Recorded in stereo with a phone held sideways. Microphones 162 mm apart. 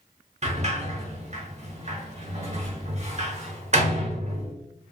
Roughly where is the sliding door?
Right.